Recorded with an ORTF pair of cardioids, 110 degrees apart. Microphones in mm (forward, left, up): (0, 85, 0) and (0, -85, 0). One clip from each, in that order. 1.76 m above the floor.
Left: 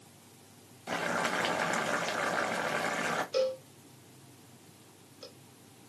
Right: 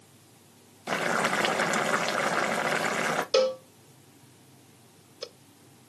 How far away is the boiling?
About 0.9 m.